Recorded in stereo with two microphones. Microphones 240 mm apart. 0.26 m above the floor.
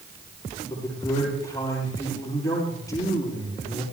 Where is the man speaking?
15° left (ahead or behind), 8 m.